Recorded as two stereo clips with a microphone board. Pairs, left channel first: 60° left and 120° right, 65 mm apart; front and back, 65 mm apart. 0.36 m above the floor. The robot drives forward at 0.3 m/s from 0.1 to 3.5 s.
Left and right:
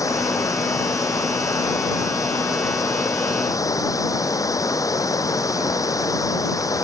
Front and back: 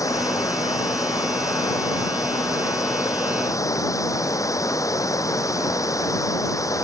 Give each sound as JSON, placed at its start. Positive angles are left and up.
{"t": 0.0, "sound": "running water", "azimuth_deg": 30}